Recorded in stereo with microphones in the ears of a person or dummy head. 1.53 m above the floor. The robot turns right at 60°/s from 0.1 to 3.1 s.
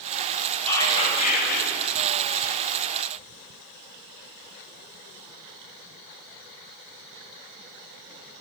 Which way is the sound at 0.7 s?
10° left.